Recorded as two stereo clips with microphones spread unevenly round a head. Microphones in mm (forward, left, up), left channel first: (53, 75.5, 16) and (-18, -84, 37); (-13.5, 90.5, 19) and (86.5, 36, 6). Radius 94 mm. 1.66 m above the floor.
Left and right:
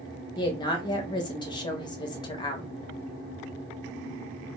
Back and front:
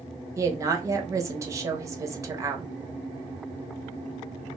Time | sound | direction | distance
0.4 | a woman speaking | 15° left | 0.6 m